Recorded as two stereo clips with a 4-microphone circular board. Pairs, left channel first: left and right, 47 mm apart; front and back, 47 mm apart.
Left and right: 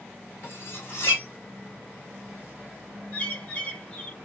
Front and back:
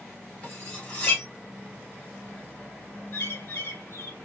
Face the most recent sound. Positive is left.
turn(degrees=25)